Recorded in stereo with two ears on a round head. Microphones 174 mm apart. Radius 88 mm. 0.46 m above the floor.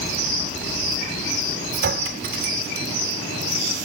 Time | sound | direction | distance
1.7 | a clink | 50° right (ahead or behind) | 1.7 m